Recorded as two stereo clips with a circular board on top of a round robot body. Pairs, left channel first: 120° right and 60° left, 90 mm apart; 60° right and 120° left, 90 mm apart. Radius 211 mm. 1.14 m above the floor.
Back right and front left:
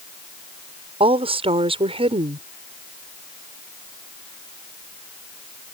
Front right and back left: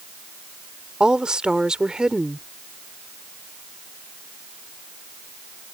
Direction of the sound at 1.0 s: 40° left.